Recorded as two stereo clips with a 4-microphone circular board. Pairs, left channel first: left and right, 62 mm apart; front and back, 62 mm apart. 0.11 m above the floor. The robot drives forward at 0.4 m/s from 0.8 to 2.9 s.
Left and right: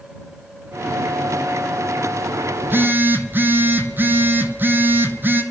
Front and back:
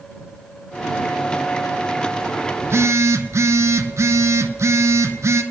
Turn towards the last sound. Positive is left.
turn(degrees=-145)